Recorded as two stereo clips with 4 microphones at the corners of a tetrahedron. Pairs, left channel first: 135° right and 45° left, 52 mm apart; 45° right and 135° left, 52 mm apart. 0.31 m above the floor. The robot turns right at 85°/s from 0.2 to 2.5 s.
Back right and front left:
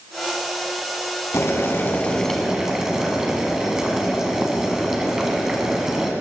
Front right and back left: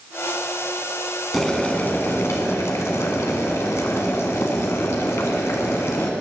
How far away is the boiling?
About 1.8 m.